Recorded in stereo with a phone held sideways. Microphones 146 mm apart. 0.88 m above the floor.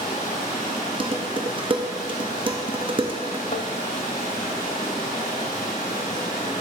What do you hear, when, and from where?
0.0 s running water: 85° left, 3 m
1.0 s dishes clattering: 35° right (ahead or behind), 0.7 m
3.5 s tapping: 55° left (ahead or behind), 0.6 m